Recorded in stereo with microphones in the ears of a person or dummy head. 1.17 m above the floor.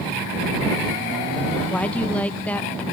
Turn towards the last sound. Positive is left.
turn(degrees=5)  # may be behind; listen again after turning